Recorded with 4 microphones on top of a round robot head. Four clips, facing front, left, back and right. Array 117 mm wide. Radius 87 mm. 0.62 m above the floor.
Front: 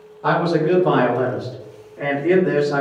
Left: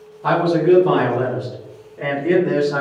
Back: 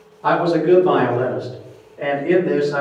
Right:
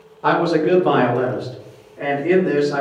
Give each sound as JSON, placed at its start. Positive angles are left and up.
{"t": 0.2, "sound": "a man speaking", "azimuth_deg": -85, "distance_m": 1.3}